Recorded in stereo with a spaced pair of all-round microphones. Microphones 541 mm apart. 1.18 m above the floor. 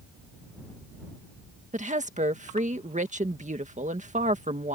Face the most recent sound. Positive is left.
turn(degrees=-15)  # may be behind; listen again after turning